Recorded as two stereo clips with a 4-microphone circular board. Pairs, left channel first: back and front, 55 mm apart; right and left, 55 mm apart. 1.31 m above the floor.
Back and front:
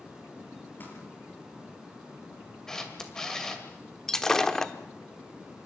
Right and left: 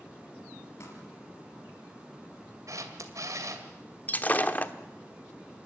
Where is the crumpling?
125° right, 5.5 m.